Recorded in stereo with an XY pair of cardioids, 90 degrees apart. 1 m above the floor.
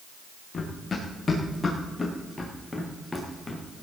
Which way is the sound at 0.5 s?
35° left.